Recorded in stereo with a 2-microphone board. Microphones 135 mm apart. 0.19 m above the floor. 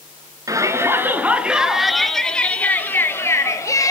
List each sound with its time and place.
0.5 s a shout: 25° right (ahead or behind), 2.5 m; by 3.9 s 25° left (ahead or behind), 3.5 m